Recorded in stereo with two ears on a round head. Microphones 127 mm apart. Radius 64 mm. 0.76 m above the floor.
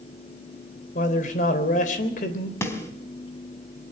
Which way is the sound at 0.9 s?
60° left (ahead or behind).